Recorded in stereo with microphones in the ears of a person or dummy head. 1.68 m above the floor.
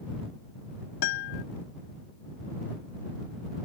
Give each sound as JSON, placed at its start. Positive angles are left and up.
{"t": 1.0, "sound": "a guitar", "side_deg": 75}